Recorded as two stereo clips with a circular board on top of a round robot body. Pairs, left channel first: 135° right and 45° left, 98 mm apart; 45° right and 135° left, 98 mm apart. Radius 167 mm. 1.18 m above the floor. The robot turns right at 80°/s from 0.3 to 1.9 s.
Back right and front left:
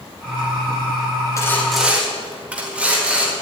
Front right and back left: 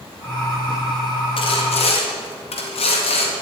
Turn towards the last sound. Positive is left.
turn(degrees=-35)